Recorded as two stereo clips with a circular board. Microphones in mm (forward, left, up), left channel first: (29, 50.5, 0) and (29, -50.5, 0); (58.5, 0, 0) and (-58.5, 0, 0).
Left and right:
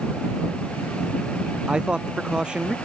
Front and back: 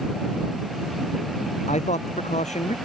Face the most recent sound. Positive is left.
turn(degrees=-10)